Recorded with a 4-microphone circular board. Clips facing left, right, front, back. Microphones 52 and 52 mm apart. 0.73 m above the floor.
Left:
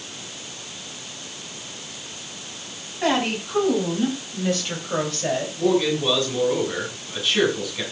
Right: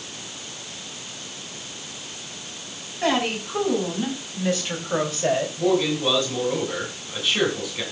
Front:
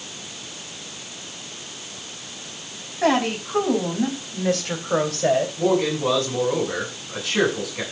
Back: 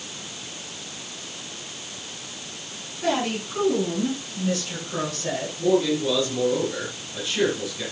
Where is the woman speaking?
5° left, 5.5 m; by 5.5 s 15° right, 3.5 m.